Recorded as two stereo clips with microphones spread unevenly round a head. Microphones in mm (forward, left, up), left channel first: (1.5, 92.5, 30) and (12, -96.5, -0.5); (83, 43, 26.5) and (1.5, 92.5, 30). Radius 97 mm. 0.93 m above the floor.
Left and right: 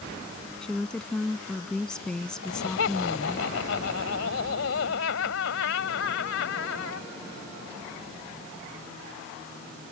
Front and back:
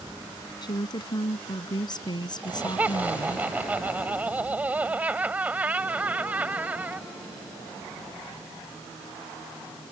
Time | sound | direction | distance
0.6 | a woman speaking | 5° left | ?
2.4 | laughter | 75° left | ?